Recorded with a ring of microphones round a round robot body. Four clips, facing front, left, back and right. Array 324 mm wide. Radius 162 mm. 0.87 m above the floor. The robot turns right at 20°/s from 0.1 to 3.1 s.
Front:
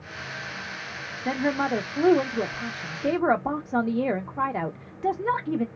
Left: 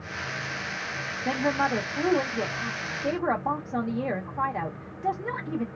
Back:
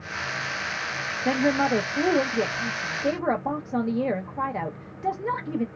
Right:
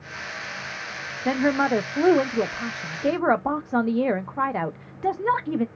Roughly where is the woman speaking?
Right.